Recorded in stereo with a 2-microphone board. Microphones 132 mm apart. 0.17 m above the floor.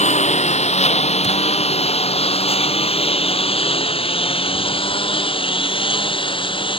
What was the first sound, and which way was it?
A lawn mower, 60° left (ahead or behind).